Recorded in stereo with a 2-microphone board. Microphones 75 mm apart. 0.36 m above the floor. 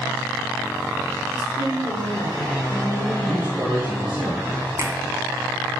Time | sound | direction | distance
1.3 | a woman speaking | 50° left (ahead or behind) | 5 m
3.2 | a man speaking | 10° right (ahead or behind) | 3.5 m
4.8 | a finger snap | 40° right (ahead or behind) | 2 m